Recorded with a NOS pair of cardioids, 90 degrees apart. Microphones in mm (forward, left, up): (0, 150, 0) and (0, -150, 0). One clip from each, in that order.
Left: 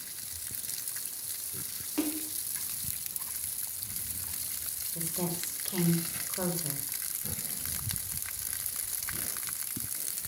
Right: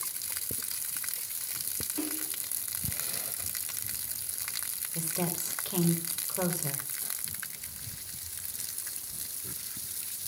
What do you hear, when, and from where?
2.0 s a splash: 30° left, 3 m
5.0 s a woman speaking: 30° right, 6 m